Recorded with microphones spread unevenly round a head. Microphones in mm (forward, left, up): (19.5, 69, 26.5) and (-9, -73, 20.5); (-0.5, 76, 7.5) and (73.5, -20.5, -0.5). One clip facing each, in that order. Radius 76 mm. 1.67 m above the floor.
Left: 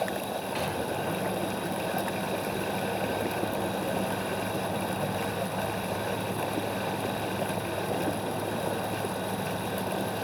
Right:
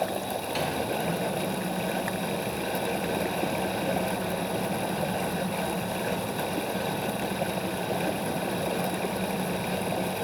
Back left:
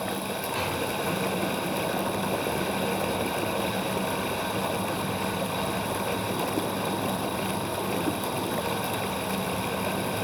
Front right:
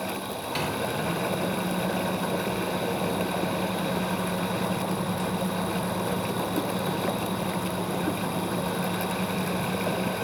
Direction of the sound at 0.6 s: 55° right.